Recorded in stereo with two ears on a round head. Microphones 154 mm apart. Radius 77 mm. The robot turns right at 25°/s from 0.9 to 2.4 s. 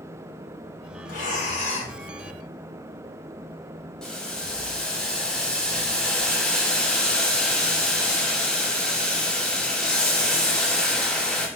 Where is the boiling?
5° left (ahead or behind), 0.8 m.